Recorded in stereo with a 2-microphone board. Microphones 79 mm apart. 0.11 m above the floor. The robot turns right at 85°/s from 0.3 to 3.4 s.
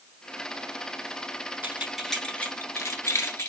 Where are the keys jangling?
20° right (ahead or behind), 1.0 m; by 3.5 s 35° left (ahead or behind), 1.0 m.